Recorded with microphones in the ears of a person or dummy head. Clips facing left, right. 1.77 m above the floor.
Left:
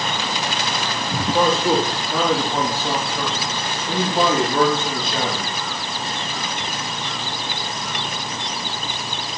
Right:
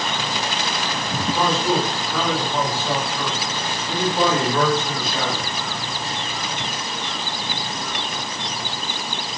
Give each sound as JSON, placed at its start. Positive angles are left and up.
{"t": 1.3, "sound": "a man speaking", "side_deg": 50, "distance_m": 4.5}